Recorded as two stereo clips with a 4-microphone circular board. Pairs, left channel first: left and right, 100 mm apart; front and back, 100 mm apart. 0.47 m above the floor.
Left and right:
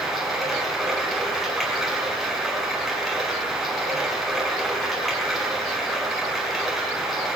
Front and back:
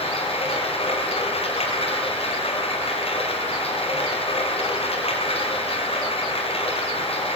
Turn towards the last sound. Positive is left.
turn(degrees=0)